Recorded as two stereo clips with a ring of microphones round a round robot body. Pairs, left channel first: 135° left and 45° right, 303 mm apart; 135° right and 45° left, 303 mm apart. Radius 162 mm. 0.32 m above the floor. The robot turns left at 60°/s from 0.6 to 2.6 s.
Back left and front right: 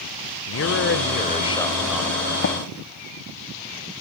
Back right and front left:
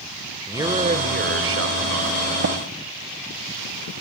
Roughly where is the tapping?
Left.